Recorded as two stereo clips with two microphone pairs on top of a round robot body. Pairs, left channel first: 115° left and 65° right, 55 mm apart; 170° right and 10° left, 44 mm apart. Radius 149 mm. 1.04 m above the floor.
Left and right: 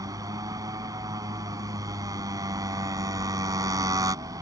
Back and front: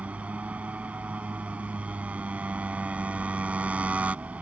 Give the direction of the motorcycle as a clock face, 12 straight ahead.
2 o'clock.